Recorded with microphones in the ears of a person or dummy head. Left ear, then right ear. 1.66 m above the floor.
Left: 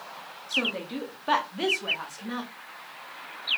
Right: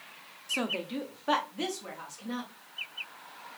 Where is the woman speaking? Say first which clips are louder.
Left 4 dB; 30° right (ahead or behind), 0.7 m; by 2.5 s 30° left (ahead or behind), 1.3 m.